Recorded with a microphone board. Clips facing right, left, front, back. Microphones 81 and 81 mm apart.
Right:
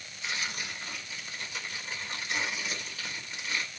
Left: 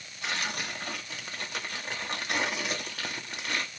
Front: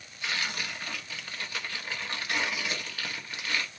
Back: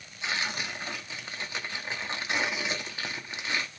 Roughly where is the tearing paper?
Behind left.